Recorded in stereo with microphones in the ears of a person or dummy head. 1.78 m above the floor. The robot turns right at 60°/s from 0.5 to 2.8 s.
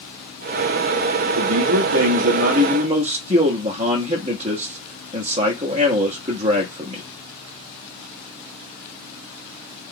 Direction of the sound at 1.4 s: 120° right.